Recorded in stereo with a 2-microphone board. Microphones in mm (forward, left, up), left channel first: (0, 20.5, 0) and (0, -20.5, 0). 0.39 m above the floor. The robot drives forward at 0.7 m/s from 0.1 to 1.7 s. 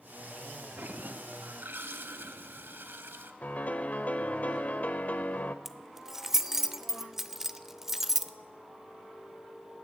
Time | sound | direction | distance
0.8 | a toilet flushing | 60° right (ahead or behind) | 1.0 m
3.4 | a piano | 45° left (ahead or behind) | 0.8 m
5.7 | keys jangling | 10° right (ahead or behind) | 0.6 m